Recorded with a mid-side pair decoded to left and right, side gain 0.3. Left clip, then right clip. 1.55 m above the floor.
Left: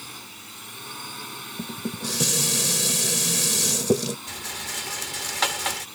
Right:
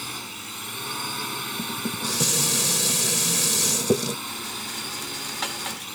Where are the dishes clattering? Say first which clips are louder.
Right 4 dB; 5° left.